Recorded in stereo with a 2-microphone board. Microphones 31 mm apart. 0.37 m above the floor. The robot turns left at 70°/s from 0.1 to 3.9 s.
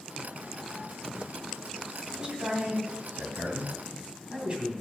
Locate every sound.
2.1 s a man speaking: 20° right (ahead or behind), 2.5 m; by 4.7 s 35° right (ahead or behind), 2.5 m